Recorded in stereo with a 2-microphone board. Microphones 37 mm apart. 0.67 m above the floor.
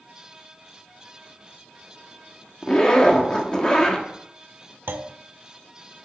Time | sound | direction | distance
2.6 | a zipper | 25° left (ahead or behind) | 1.3 m
4.9 | a clunk | 75° right (ahead or behind) | 0.7 m